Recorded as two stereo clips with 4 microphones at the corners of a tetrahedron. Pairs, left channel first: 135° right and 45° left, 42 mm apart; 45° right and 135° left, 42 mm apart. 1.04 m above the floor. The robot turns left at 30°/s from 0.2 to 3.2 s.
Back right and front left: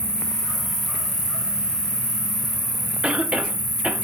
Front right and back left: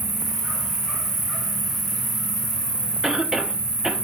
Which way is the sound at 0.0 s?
150° left.